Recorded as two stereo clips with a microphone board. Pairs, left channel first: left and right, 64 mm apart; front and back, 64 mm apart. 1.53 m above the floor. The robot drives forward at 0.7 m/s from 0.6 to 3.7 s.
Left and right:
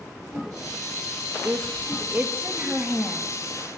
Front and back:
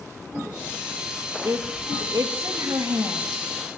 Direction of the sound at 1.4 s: 140° right.